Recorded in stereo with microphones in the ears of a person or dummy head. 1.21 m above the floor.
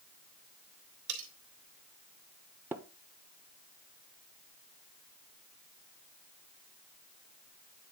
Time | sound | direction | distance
1.1 | cutlery clinking | 80° right | 2.5 m
2.7 | tapping | 10° right (ahead or behind) | 0.5 m